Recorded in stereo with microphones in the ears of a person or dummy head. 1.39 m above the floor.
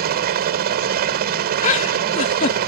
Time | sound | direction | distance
0.0 | a helicopter | 50° right (ahead or behind) | ?
1.6 | a giggle | 40° left (ahead or behind) | ?